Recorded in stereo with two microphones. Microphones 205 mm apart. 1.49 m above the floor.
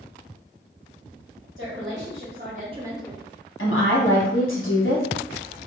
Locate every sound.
1.6 s a woman speaking: 75° right (ahead or behind), 1.3 m; by 3.2 s 15° left (ahead or behind), 0.6 m
3.6 s a woman speaking: 80° left, 0.9 m